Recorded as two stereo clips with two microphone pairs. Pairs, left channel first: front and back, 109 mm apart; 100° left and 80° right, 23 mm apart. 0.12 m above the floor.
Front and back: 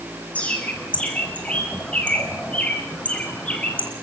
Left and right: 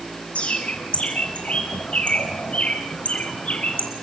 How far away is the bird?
About 2 m.